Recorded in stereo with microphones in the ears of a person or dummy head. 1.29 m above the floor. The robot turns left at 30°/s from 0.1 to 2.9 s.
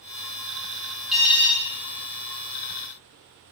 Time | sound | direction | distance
1.1 | an alarm | centre (ahead or behind) | 1.5 m